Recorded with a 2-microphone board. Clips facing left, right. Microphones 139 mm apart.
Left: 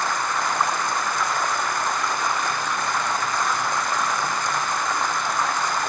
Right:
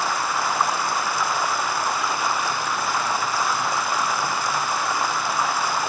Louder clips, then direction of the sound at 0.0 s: Right 1 dB; 5° right (ahead or behind).